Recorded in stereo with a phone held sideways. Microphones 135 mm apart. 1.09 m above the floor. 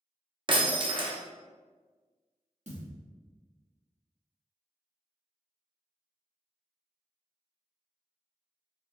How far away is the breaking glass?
About 0.8 m.